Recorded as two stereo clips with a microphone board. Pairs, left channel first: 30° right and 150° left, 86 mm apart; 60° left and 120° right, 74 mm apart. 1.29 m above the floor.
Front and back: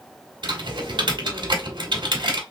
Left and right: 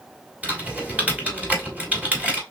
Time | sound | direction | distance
0.4 | typing on a keyboard | 170° left | 1.4 m